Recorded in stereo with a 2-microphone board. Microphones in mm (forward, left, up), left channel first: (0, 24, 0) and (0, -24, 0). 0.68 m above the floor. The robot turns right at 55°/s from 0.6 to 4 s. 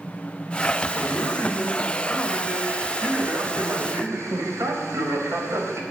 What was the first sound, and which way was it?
A man speaking, 100° left.